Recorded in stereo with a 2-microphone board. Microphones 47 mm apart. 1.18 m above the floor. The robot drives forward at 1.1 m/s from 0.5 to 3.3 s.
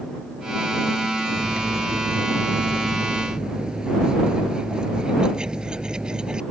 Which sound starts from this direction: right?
Cutlery clinking, at 1.3 s.